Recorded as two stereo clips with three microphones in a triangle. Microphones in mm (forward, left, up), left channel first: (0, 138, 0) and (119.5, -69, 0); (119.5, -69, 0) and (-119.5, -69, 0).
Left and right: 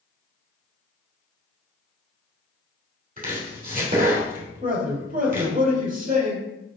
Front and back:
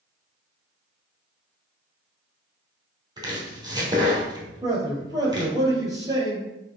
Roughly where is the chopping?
Right.